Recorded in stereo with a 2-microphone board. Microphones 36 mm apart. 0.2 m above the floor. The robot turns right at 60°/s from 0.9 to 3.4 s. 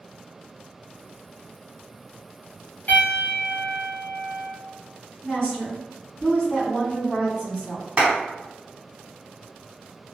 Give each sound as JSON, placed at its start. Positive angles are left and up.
{"t": 2.9, "sound": "a piano", "azimuth_deg": 95, "distance_m": 1.4}
{"t": 5.2, "sound": "a woman speaking", "side_deg": 20, "distance_m": 1.4}
{"t": 8.0, "sound": "a clap", "side_deg": -35, "distance_m": 1.4}